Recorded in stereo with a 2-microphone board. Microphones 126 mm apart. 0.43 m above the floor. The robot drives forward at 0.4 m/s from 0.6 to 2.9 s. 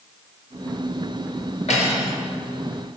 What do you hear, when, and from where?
1.7 s cutlery clinking: 70° left (ahead or behind), 4 m